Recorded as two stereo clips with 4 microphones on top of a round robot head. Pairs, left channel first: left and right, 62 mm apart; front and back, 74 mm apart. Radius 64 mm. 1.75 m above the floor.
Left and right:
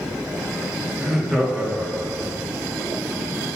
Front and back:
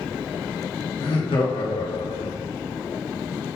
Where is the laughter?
10° right, 3 m; by 2.4 s 30° right, 1.0 m.